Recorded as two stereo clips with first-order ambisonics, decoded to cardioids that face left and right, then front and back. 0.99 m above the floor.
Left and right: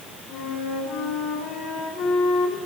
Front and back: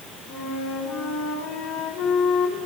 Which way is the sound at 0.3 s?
20° left.